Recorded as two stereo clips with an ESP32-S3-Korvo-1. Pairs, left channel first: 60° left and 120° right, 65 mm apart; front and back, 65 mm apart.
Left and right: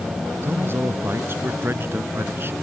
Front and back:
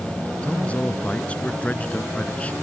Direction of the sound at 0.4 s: 70° right.